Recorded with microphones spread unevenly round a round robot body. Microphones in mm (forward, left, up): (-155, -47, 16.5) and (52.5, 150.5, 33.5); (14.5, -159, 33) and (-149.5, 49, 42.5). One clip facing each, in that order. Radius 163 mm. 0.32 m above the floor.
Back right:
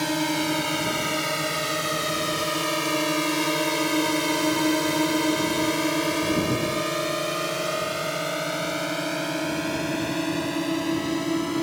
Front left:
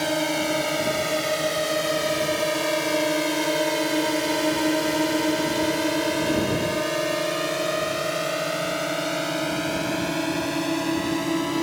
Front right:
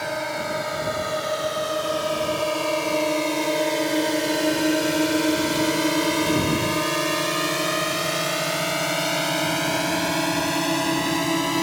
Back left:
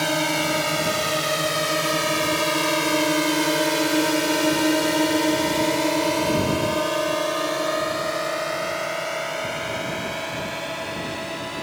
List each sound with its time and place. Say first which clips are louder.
0.0 s a drone: even, back left 5 dB; 155° left; by 11.6 s 45° right